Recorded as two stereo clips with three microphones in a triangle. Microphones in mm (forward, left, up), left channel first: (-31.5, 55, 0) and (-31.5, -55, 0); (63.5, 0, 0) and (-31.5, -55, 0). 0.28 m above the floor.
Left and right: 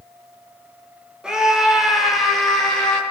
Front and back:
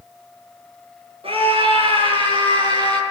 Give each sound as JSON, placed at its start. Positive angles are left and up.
{"t": 1.2, "sound": "a scream", "azimuth_deg": -175, "distance_m": 7.0}